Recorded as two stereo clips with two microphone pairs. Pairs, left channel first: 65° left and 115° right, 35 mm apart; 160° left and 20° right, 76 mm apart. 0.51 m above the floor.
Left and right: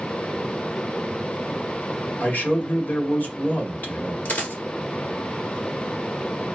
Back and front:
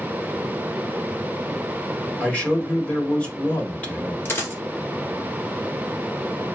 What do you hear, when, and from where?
2.2 s a man speaking: 90° left, 1.7 m
4.2 s a dropped coin: 100° left, 1.8 m